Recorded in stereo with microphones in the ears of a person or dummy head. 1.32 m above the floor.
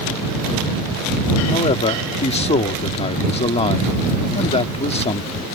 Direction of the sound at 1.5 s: 30° left (ahead or behind).